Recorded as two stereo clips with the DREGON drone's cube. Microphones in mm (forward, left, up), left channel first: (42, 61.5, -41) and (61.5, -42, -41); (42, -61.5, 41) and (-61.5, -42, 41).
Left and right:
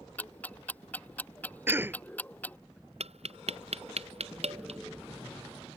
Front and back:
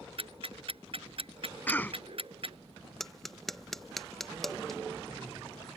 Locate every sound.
0.2 s ticking: 175° left
1.7 s a cough: 55° right
3.0 s tapping: 100° right